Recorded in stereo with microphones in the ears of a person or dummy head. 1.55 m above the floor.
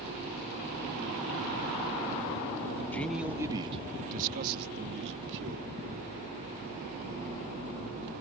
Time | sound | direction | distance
2.9 | a man speaking | 10° left (ahead or behind) | ?